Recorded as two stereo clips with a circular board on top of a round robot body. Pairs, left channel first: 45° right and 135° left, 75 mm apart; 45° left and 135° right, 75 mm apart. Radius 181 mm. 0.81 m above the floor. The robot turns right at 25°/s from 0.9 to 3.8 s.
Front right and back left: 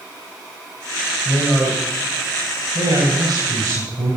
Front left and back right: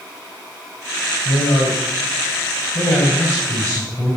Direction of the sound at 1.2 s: 50° left.